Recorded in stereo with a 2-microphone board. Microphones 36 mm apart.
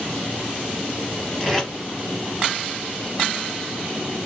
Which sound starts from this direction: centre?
Tape being pulled, at 1.4 s.